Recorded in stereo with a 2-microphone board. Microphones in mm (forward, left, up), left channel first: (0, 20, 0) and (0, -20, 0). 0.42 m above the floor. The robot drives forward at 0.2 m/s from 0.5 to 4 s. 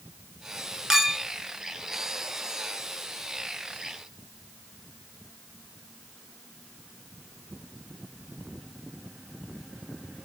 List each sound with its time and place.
0.9 s a clink: 10° right (ahead or behind), 0.5 m